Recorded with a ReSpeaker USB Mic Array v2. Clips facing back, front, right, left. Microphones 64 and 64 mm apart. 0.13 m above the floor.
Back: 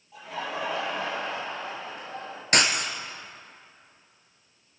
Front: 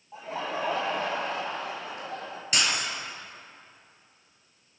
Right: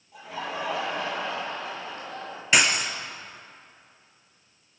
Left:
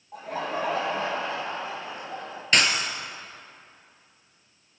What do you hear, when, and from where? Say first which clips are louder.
0.1 s laughter: front 1 dB, left 3 dB; 55° left, 3.5 m; by 2.4 s 20° left, 4 m
2.5 s breaking glass: back 4 dB, right 1 dB; 170° right, 1.3 m